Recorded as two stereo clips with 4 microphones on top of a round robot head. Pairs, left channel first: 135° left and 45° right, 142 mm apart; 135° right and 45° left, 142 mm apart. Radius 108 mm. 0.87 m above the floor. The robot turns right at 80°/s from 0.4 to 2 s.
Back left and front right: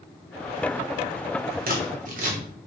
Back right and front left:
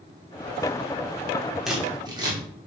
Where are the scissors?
45° right, 3 m; by 2.4 s 20° right, 3 m.